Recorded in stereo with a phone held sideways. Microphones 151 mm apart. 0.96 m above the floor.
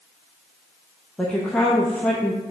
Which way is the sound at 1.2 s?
5° left (ahead or behind).